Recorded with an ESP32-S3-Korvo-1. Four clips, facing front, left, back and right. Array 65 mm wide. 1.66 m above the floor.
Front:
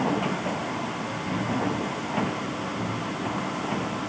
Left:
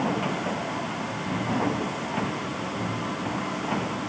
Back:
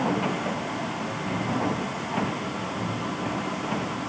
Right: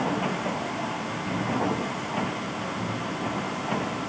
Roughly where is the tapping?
I don't hear tapping.